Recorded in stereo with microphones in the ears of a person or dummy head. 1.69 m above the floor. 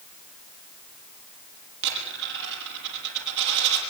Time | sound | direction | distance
1.8 | a dropped coin | 65° right (ahead or behind) | 6.5 m